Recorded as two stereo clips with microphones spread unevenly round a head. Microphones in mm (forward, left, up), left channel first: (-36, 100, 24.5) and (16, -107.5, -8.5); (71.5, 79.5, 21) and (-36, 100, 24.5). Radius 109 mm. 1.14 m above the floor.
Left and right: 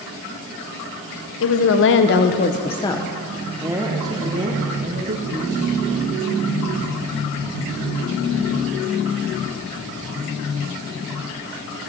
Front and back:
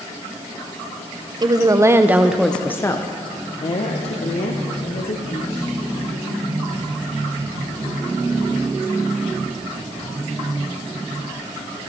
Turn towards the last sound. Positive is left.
turn(degrees=-20)